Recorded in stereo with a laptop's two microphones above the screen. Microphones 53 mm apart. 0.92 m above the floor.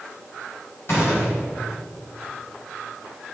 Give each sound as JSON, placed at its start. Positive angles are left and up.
{"t": 0.9, "sound": "a gunshot", "side_deg": 60, "distance_m": 4.5}